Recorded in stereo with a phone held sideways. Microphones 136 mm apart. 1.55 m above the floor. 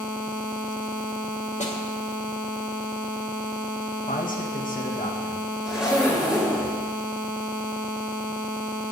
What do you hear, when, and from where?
1.6 s a snare drum: 55° left (ahead or behind), 2 m
4.1 s a man speaking: 80° left, 1.6 m
5.7 s a zipper: 5° right (ahead or behind), 4.5 m